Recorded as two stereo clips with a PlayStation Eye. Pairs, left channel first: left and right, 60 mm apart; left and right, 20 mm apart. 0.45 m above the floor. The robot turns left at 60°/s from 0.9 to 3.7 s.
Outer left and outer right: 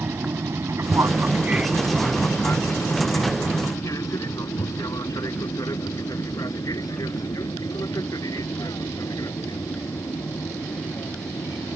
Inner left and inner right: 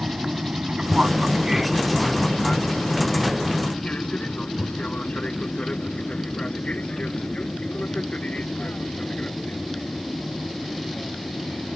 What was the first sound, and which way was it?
An aircraft, 50° right (ahead or behind).